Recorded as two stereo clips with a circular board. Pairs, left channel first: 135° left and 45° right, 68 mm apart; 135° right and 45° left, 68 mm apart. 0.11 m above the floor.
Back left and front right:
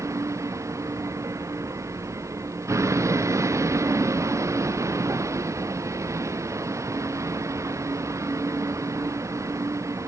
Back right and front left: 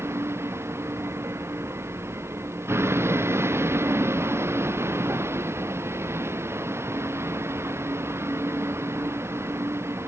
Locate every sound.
0.0 s a vehicle: 5° right